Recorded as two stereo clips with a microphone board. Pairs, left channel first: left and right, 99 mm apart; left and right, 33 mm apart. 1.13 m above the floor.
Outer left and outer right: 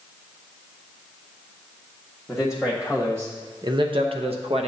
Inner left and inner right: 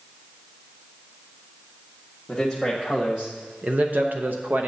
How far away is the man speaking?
About 1.3 m.